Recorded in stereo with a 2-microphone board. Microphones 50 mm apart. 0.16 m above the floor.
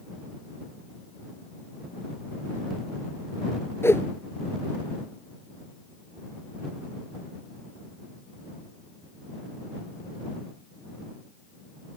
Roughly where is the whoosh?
Left.